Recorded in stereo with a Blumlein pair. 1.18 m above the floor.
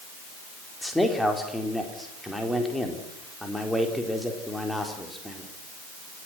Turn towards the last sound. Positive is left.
turn(degrees=5)